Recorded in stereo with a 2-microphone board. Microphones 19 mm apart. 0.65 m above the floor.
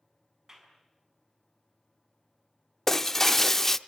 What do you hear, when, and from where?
0.5 s a clap: 25° right (ahead or behind), 5 m
2.9 s breaking glass: 15° left (ahead or behind), 0.7 m